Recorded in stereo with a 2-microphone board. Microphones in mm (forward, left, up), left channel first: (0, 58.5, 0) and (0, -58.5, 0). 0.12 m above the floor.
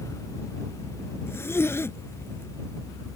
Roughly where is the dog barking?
I don't hear a dog barking.